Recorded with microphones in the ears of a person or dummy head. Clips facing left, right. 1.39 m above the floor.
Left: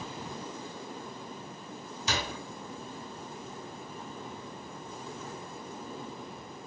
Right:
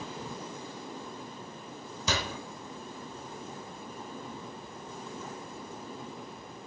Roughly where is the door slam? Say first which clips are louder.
Right 1 dB; right.